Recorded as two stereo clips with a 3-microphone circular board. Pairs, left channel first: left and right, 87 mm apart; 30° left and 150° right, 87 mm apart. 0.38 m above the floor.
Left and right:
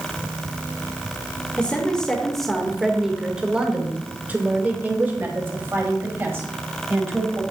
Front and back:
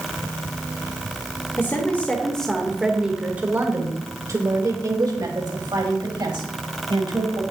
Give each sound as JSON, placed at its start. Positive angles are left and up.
{"t": 1.6, "sound": "a woman speaking", "azimuth_deg": 35, "distance_m": 1.2}